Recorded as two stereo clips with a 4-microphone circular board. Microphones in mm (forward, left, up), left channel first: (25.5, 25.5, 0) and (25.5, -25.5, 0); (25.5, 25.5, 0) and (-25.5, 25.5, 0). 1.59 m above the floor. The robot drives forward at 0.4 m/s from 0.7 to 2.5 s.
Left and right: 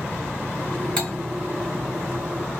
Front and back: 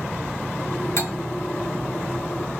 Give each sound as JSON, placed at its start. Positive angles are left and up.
{"t": 1.0, "sound": "cutlery clinking", "azimuth_deg": 20, "distance_m": 1.4}